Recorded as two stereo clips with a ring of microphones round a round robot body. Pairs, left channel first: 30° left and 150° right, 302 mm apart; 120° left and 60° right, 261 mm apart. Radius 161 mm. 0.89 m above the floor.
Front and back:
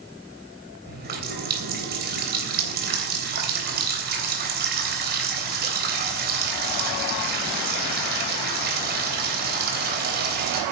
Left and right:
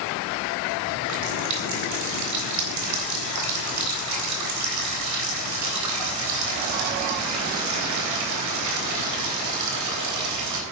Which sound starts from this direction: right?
A running tap, at 0.9 s.